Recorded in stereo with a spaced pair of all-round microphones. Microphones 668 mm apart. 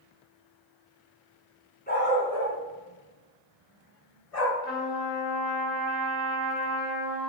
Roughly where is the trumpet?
Left.